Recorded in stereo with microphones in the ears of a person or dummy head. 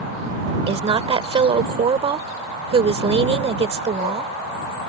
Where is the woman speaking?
30° right (ahead or behind).